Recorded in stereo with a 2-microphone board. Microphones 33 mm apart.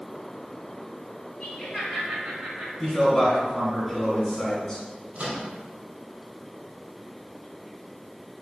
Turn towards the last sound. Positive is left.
turn(degrees=-40)  # may be behind; listen again after turning